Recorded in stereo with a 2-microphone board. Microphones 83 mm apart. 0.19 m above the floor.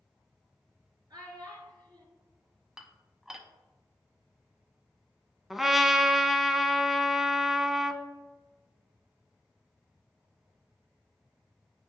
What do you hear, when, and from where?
1.1 s a child speaking: 55° right (ahead or behind), 2.5 m
2.8 s dishes clattering: 5° right (ahead or behind), 0.7 m
5.5 s a trumpet: centre (ahead or behind), 0.5 m